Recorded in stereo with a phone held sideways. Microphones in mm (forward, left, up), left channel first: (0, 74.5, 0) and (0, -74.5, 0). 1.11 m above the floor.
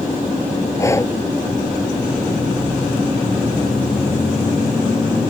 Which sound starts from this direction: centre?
Breathing, at 0.8 s.